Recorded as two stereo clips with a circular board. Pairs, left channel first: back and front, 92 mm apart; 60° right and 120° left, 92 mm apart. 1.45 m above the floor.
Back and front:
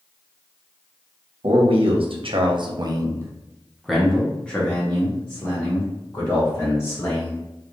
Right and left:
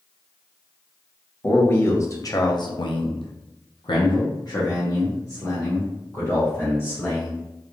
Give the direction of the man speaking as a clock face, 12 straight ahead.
12 o'clock.